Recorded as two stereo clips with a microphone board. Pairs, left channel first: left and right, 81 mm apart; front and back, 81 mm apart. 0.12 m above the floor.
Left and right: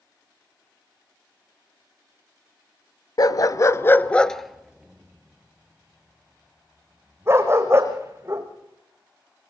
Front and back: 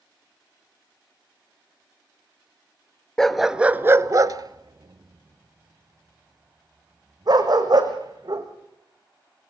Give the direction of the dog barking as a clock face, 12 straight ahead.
9 o'clock.